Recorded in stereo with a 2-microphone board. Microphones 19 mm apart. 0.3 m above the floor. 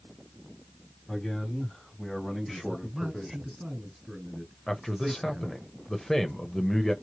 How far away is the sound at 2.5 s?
About 2 m.